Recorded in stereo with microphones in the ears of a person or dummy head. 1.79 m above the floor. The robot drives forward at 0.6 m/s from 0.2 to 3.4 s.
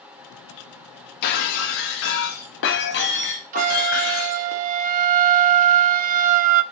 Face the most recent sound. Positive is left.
turn(degrees=-45)  # may be behind; listen again after turning